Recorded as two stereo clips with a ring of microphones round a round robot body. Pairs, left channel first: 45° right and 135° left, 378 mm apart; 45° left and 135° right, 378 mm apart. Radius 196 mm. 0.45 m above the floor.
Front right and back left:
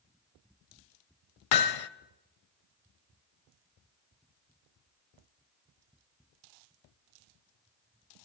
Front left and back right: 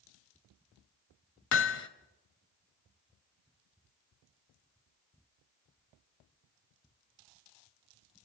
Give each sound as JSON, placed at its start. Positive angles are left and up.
{"t": 1.5, "sound": "hammering", "azimuth_deg": -15, "distance_m": 0.9}